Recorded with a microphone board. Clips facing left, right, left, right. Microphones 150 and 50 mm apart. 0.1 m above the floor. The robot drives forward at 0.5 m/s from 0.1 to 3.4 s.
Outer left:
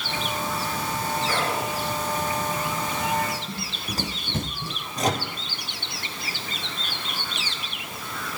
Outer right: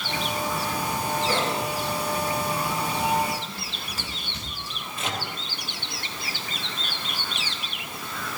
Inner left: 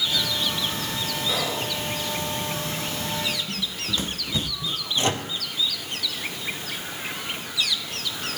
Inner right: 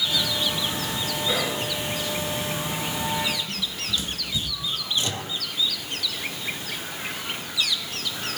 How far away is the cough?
No cough in this recording.